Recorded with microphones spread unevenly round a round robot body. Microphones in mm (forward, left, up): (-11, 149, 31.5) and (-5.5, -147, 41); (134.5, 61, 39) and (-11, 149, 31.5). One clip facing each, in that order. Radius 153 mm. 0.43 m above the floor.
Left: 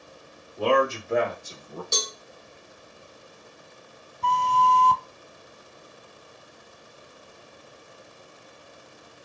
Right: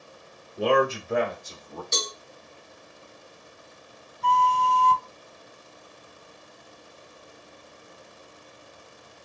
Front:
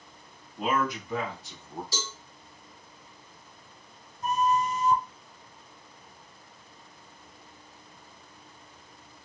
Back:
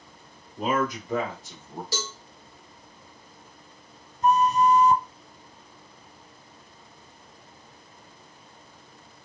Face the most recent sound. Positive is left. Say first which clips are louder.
# even, back 6 dB
turn(degrees=120)